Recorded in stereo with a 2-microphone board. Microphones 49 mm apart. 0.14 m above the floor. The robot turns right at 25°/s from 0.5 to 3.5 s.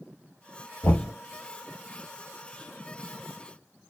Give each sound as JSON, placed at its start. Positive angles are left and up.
{"t": 0.8, "sound": "knocking", "side_deg": 60, "distance_m": 1.8}